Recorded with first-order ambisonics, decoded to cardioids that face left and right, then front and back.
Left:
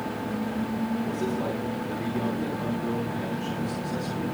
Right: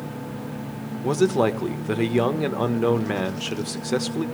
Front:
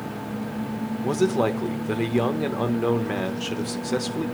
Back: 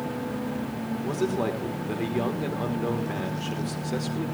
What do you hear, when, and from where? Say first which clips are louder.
1.0 s a man speaking: right 14 dB, front 6 dB; 65° right, 1.3 m